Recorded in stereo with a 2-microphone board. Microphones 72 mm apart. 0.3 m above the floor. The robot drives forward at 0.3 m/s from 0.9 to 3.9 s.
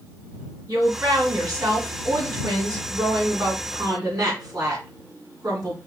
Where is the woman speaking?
60° right (ahead or behind), 2 m.